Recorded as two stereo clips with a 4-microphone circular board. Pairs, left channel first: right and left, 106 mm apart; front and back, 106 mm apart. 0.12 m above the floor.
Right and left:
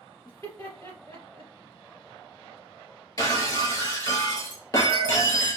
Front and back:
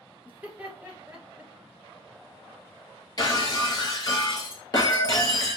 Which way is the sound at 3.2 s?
40° right.